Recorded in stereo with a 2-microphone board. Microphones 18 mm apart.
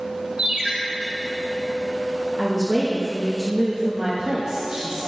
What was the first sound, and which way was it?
A ringtone, 65° right (ahead or behind).